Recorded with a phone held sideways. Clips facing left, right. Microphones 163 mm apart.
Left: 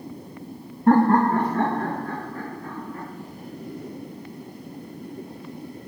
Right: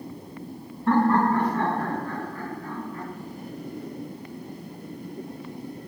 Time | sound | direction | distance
0.9 | laughter | 45° left (ahead or behind) | 0.5 m